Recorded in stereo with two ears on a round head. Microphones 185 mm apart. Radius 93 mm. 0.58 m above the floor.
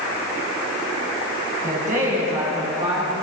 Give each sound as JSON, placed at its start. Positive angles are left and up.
{"t": 1.6, "sound": "a woman speaking", "side_deg": -40, "distance_m": 5.5}